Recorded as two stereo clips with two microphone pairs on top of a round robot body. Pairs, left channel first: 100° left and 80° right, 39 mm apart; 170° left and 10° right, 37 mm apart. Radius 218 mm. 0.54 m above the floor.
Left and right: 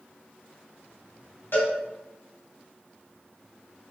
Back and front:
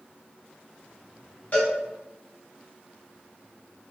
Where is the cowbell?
125° left, 4.5 m.